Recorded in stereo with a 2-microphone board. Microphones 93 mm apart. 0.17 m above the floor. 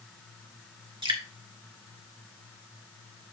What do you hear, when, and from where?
1.0 s dripping: 55° right (ahead or behind), 1.5 m